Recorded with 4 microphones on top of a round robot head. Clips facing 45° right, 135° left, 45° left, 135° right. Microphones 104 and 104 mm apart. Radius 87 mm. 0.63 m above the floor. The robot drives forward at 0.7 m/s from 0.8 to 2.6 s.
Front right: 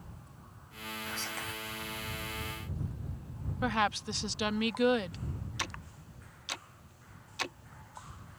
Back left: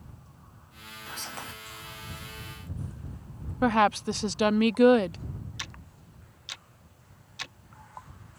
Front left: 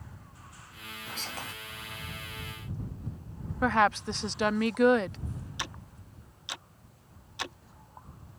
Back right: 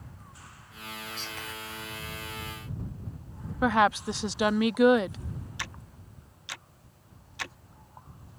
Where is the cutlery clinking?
No cutlery clinking in this recording.